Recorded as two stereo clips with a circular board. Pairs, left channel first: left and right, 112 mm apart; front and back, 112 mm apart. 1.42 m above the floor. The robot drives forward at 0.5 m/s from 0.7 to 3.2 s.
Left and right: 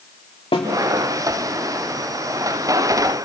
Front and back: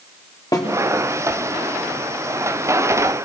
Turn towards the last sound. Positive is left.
turn(degrees=80)